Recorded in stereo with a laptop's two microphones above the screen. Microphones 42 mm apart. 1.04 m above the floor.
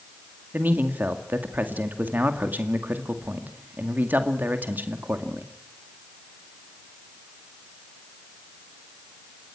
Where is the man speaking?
45° right (ahead or behind), 2 m.